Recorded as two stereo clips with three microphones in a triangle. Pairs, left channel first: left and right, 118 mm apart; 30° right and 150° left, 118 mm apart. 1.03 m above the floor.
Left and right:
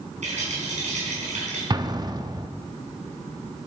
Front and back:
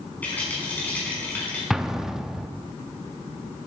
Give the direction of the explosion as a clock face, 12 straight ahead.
4 o'clock.